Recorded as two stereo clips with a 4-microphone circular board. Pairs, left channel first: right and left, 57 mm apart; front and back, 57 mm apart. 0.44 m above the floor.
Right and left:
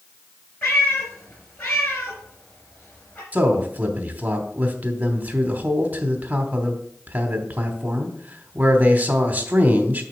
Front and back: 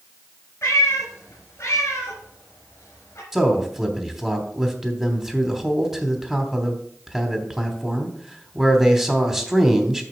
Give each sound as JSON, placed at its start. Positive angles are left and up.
{"t": 0.6, "sound": "a cat meowing", "azimuth_deg": -45, "distance_m": 3.5}
{"t": 3.3, "sound": "a man speaking", "azimuth_deg": 105, "distance_m": 1.1}